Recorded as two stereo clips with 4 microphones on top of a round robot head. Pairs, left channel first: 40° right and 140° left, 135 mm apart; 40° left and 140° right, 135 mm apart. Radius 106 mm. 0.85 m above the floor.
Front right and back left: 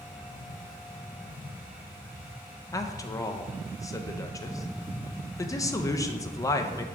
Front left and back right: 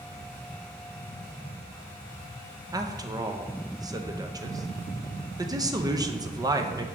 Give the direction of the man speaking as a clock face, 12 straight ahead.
3 o'clock.